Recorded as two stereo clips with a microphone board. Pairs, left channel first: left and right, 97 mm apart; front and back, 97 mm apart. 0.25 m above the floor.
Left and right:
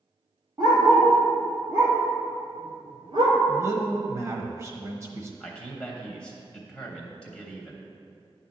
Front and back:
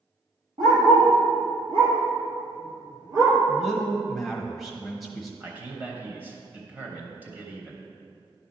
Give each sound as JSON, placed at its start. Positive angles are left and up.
{"t": 0.6, "sound": "a dog barking", "azimuth_deg": -175, "distance_m": 2.5}
{"t": 3.5, "sound": "a man speaking", "azimuth_deg": -90, "distance_m": 1.0}
{"t": 5.4, "sound": "a man speaking", "azimuth_deg": 155, "distance_m": 0.9}